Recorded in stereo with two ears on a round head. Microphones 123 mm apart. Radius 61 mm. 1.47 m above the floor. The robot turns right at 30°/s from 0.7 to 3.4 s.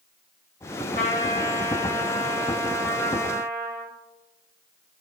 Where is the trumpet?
90° left, 2.5 m; by 3.9 s 165° left, 2.5 m.